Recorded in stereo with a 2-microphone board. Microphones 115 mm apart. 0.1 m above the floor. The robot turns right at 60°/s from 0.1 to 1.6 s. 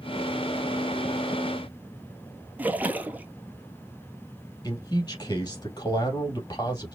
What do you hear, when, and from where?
2.6 s a splash: 15° right (ahead or behind), 0.6 m
4.6 s a man speaking: 35° left (ahead or behind), 3 m